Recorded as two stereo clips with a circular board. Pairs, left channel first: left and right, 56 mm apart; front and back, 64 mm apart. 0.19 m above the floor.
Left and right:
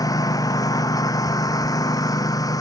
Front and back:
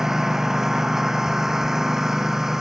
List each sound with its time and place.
0.0 s a lawn mower: 95° left